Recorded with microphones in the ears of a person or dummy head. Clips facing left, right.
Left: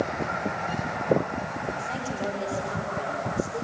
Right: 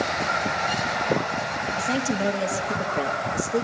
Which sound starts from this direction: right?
A woman speaking, at 1.8 s.